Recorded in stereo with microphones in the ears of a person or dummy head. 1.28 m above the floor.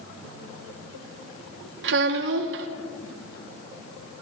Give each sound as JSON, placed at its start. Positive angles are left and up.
{"t": 1.8, "sound": "a child speaking", "side_deg": -60, "distance_m": 1.2}